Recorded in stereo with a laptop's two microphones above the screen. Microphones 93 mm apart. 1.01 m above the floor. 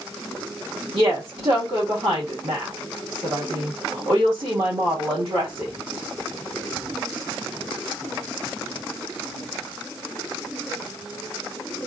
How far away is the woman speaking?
About 1.6 m.